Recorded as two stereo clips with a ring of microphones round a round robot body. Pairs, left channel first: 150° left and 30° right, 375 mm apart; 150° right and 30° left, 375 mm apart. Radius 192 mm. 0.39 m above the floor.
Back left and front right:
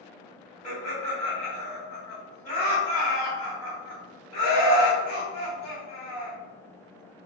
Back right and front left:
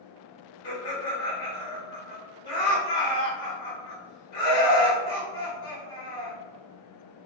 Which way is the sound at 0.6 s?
140° right.